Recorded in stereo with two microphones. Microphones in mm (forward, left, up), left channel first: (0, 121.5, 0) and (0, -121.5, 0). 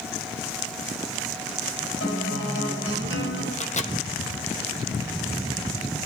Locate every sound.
2.0 s a guitar: 50° left (ahead or behind), 6.5 m
3.5 s a microwave: 30° left (ahead or behind), 1.0 m